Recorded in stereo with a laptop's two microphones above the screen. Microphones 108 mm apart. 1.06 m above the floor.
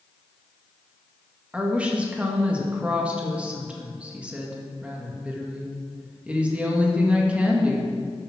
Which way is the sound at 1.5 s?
10° right (ahead or behind).